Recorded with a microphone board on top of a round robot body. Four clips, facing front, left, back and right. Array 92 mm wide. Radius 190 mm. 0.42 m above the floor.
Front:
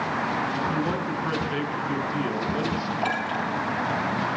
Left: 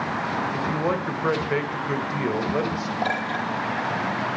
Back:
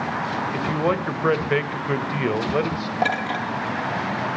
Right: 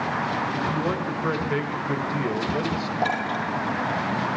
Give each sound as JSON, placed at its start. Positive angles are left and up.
{"t": 0.5, "sound": "a man speaking", "azimuth_deg": 160, "distance_m": 3.0}
{"t": 3.0, "sound": "a clink", "azimuth_deg": -175, "distance_m": 10.0}